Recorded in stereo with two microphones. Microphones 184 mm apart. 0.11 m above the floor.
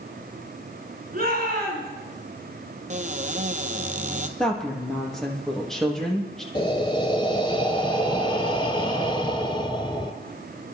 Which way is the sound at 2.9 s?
45° right (ahead or behind).